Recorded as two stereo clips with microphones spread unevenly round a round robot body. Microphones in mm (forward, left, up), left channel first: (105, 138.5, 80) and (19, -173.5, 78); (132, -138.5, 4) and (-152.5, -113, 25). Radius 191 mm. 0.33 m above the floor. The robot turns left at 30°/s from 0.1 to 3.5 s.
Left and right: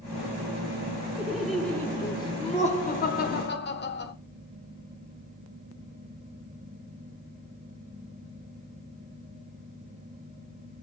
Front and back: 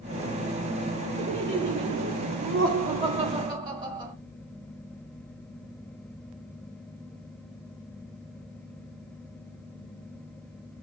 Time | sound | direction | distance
1.2 | laughter | 175° left | 1.3 m